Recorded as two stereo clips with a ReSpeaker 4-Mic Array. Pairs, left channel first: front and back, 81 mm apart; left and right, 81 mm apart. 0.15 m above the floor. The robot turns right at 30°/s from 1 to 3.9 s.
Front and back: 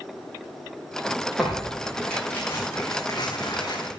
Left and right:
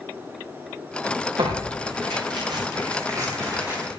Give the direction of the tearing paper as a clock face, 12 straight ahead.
3 o'clock.